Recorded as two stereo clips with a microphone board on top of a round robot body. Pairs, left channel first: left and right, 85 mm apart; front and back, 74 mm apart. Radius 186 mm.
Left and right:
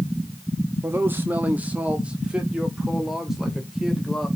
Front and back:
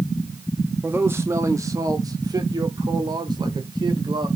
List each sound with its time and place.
0.8 s a man speaking: 130° right, 1.7 m; by 4.3 s straight behind, 3.5 m